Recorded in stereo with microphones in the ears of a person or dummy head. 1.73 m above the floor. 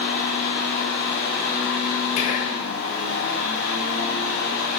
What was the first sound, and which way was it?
A fan, 45° left (ahead or behind).